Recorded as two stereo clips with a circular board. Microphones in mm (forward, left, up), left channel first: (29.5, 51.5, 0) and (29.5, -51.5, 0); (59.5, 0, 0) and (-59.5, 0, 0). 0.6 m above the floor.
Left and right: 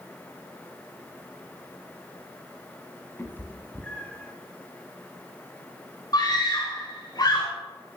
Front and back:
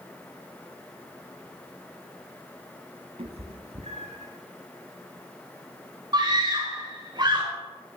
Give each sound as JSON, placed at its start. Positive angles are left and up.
{"t": 3.2, "sound": "a cat meowing", "azimuth_deg": 155, "distance_m": 1.5}
{"t": 6.1, "sound": "a scream", "azimuth_deg": 130, "distance_m": 3.0}